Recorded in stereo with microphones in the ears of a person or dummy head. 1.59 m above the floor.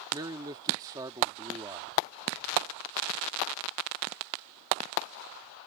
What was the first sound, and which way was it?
A man speaking, 25° right (ahead or behind).